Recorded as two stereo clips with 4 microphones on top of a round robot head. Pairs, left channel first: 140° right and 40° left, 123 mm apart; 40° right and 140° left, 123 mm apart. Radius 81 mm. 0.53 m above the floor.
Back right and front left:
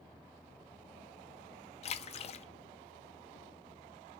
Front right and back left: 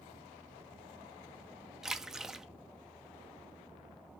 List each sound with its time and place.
1.8 s a splash: 135° right, 0.6 m